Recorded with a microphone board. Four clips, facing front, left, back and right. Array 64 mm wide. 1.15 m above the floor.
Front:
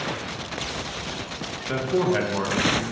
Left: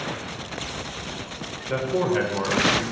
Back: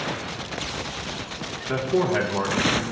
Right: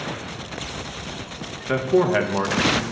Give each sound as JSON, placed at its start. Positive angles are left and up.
{"t": 1.7, "sound": "a man speaking", "azimuth_deg": -85, "distance_m": 1.4}